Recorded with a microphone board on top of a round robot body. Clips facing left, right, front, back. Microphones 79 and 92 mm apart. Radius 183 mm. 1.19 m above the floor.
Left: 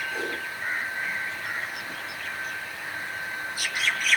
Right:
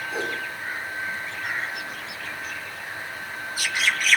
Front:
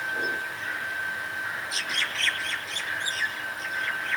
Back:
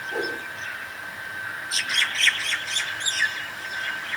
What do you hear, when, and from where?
0.1 s a whoosh: 165° right, 4 m